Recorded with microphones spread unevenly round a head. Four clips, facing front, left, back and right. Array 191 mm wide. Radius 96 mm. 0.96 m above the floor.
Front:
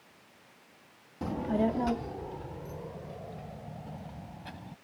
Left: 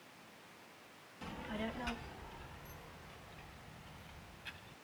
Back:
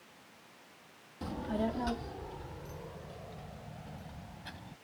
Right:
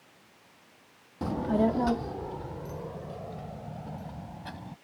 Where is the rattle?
I don't hear a rattle.